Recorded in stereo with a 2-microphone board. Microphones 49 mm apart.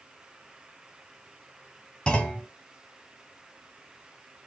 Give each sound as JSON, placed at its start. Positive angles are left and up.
{"t": 2.1, "sound": "a clunk", "side_deg": 15, "distance_m": 1.2}